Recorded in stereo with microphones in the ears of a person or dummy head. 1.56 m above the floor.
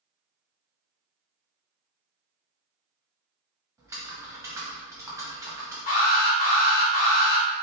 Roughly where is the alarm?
Left.